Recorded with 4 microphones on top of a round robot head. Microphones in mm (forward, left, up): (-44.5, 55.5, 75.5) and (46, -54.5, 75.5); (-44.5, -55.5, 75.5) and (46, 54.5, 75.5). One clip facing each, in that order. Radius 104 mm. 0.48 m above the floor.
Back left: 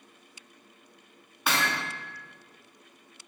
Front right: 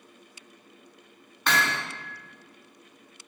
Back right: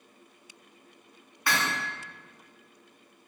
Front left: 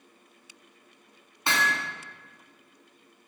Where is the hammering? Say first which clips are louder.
Front right 2 dB, front left 1 dB; 60° left, 0.7 m.